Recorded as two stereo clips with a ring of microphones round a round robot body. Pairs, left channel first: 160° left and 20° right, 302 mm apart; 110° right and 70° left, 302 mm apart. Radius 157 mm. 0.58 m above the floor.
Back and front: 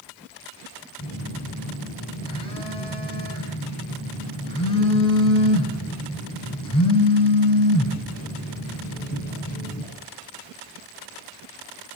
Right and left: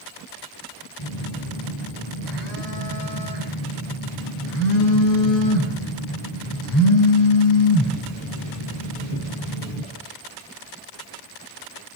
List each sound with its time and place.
1.0 s a phone buzzing: 130° right, 5 m